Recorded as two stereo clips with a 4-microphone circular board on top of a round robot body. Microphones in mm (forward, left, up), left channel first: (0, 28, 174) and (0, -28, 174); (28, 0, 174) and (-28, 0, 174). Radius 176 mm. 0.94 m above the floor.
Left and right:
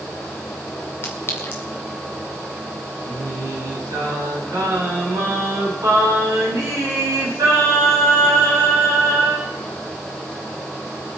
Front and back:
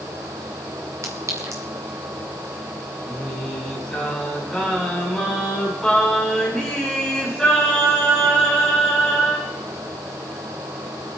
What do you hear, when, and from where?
1.0 s a clink: 140° left, 2 m
3.0 s singing: 85° right, 5.5 m